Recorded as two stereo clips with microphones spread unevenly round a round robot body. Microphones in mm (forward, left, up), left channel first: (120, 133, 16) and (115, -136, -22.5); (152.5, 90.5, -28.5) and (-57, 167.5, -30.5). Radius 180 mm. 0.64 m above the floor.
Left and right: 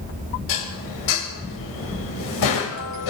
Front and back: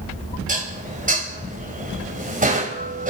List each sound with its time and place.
0.5 s dishes clattering: 105° left, 2.5 m